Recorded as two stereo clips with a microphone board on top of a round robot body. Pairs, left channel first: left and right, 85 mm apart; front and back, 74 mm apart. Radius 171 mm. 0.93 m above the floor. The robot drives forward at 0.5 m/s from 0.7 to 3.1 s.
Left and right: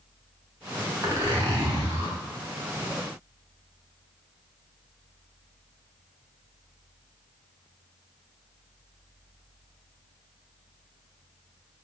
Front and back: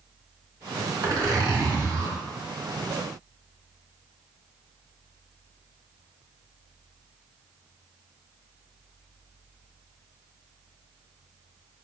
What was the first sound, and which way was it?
A zipper, 140° right.